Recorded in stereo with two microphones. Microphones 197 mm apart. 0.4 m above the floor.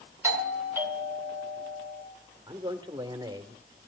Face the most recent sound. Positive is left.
turn(degrees=-20)  # may be behind; listen again after turning